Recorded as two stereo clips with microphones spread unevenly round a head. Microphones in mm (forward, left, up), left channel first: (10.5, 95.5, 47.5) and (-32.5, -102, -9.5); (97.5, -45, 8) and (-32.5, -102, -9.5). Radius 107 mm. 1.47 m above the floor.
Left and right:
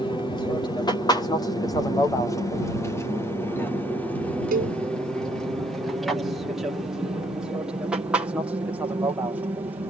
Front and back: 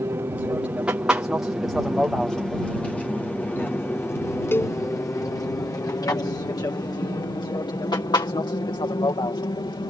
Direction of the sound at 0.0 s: 155° left.